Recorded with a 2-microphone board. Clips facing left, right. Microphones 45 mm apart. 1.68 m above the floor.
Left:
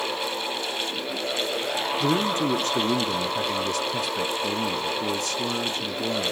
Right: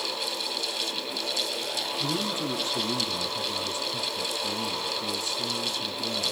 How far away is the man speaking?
About 0.8 m.